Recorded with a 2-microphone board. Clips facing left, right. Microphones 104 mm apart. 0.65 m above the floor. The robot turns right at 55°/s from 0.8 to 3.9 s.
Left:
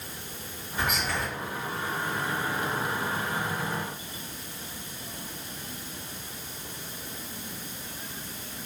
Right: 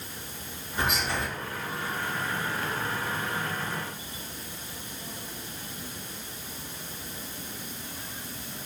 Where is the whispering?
35° right (ahead or behind), 1.6 m; by 1.3 s 15° right (ahead or behind), 1.6 m.